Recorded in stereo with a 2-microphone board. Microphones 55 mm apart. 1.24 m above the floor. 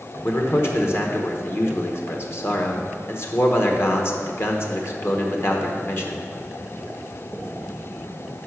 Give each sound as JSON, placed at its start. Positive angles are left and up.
{"t": 0.2, "sound": "a man speaking", "side_deg": 45, "distance_m": 1.0}